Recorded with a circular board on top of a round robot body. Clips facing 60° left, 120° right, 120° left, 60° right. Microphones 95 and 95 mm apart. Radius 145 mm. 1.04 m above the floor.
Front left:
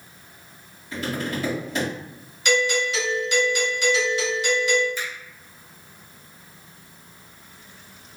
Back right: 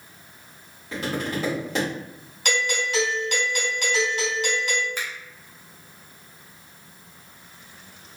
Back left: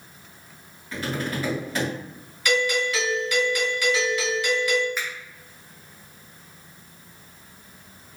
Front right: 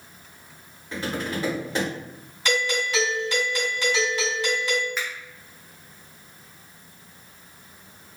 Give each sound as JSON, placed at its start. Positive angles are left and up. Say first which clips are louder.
{"t": 0.9, "sound": "tapping", "louder": "even, even", "azimuth_deg": -130, "distance_m": 1.3}
{"t": 2.5, "sound": "a doorbell", "louder": "front left 4 dB, back left 2 dB", "azimuth_deg": -115, "distance_m": 2.0}
{"t": 5.0, "sound": "a finger snap", "louder": "front left 1 dB, even", "azimuth_deg": -150, "distance_m": 0.8}